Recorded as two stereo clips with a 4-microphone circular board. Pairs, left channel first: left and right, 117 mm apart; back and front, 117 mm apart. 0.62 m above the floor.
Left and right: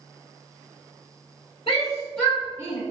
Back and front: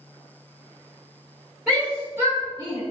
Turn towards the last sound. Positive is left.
turn(degrees=-50)